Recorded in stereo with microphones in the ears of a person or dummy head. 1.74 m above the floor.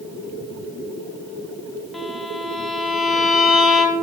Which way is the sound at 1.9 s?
Centre (ahead or behind).